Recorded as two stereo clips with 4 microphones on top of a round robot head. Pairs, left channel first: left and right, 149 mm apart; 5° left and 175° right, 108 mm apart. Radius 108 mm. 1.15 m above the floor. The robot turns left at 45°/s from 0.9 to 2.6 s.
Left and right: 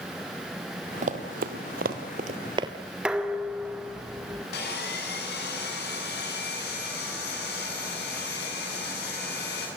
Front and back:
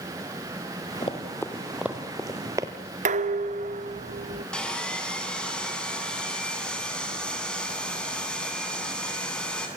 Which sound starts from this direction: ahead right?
Running footsteps, at 1.0 s.